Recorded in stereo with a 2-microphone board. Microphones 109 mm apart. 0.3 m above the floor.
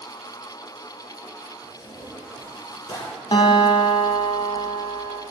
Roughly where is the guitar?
Left.